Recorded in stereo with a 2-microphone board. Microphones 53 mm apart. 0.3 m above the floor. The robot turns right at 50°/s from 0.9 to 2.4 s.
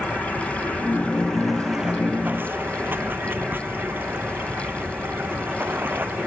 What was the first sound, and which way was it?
Running water, 145° left.